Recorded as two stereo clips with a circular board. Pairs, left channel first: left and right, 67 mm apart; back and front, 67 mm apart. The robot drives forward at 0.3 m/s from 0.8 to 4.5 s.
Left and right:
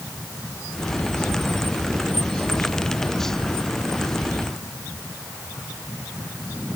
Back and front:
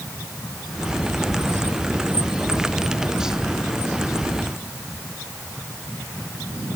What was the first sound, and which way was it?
Only background noise.